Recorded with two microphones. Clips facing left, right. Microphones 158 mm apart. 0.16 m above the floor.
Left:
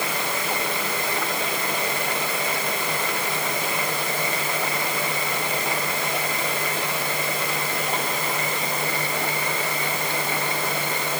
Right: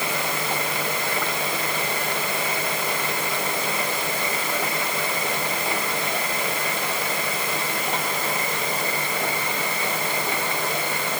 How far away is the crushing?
No crushing in this recording.